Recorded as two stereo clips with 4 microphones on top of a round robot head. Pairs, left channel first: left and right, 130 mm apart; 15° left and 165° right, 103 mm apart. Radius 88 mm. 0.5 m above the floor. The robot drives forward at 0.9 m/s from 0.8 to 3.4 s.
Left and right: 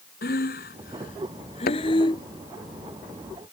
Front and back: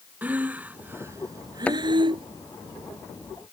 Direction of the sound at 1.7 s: 90° left.